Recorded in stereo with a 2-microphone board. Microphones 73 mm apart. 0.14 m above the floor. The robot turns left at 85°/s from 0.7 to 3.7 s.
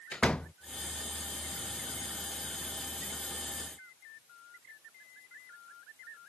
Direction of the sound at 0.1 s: 15° left (ahead or behind).